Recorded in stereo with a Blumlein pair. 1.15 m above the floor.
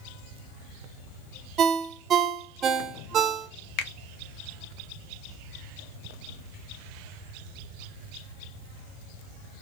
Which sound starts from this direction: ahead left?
A finger snap, at 3.8 s.